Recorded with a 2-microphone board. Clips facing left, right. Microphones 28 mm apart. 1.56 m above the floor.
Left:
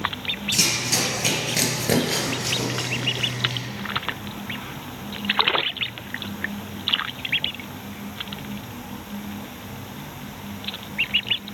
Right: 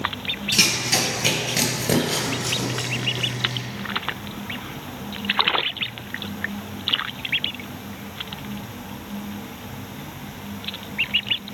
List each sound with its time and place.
0.5 s running footsteps: 30° right (ahead or behind), 1.7 m; by 3.6 s 40° left (ahead or behind), 2.5 m